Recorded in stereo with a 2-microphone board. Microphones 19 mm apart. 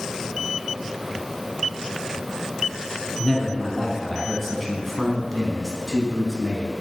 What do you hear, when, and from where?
3.2 s a man speaking: 5° left (ahead or behind), 1.7 m; by 6.7 s 10° left (ahead or behind), 1.4 m